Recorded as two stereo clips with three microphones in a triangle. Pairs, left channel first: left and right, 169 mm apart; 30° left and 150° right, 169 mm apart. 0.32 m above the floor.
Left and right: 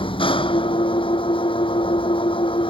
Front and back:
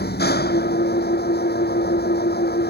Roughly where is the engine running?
Ahead left.